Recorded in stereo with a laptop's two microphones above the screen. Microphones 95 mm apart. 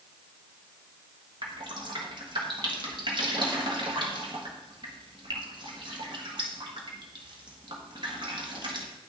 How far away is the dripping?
About 1.4 m.